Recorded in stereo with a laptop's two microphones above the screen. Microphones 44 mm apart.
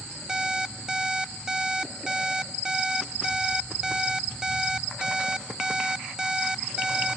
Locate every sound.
0.3 s an alarm clock: 10° right (ahead or behind), 0.8 m